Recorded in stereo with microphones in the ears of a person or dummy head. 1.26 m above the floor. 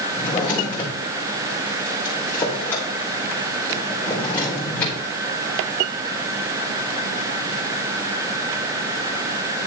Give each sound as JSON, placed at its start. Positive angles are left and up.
{"t": 0.1, "sound": "a drawer", "side_deg": 10, "distance_m": 3.0}